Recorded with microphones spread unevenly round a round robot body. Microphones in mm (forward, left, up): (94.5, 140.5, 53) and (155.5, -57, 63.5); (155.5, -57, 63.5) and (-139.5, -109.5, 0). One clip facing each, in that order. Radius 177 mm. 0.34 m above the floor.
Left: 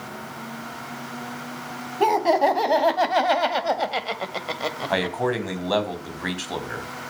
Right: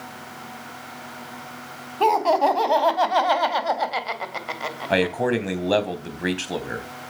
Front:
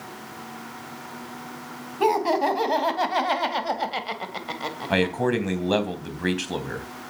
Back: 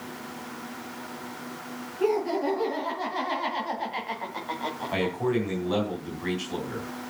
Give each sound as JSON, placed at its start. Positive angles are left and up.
{"t": 2.0, "sound": "laughter", "azimuth_deg": 30, "distance_m": 3.5}
{"t": 4.9, "sound": "a man speaking", "azimuth_deg": -10, "distance_m": 3.5}